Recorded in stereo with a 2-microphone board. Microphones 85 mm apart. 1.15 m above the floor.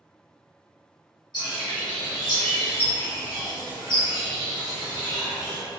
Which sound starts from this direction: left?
A bird, at 1.3 s.